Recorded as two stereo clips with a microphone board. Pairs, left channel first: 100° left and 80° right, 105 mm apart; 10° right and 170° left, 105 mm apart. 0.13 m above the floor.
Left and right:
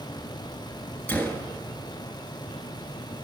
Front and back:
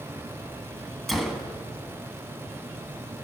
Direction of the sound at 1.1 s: 80° left.